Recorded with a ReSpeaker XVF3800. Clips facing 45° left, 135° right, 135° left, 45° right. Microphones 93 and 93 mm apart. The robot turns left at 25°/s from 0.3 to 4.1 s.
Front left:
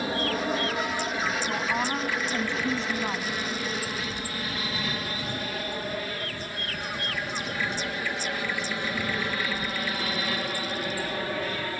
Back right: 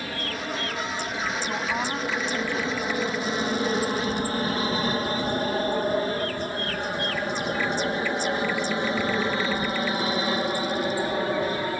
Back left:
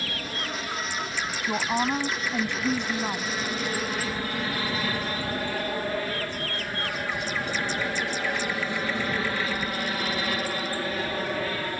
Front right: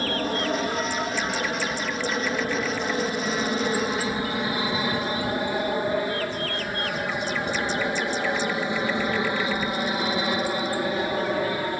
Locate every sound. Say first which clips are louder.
0.0 s an aircraft: front left 4 dB, front right 9 dB; 15° right; by 11.8 s 95° right
1.5 s a woman speaking: even, back left 2 dB; 140° left; by 3.3 s 95° left